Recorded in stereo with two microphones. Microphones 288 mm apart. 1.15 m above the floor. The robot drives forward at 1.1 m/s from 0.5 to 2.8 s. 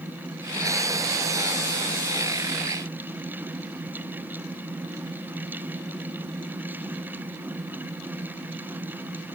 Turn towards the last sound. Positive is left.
No sound to turn to.